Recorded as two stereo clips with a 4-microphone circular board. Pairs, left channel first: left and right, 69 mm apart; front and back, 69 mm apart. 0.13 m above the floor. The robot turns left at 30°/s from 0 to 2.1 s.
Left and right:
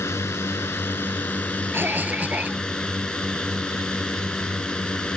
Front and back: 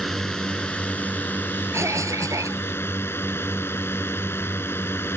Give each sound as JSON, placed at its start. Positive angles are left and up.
{"t": 0.0, "sound": "a drone", "azimuth_deg": 85}
{"t": 1.7, "sound": "a cough", "azimuth_deg": -140}